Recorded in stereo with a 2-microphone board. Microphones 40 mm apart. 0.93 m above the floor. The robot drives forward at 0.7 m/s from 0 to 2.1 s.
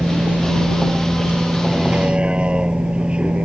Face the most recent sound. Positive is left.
turn(degrees=-25)  # may be behind; listen again after turning